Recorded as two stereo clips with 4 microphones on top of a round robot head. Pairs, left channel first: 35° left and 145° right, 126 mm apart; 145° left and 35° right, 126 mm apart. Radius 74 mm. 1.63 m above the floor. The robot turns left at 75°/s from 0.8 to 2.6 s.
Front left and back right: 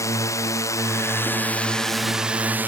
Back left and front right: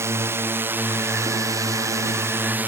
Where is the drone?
5° left; by 2.7 s 90° right.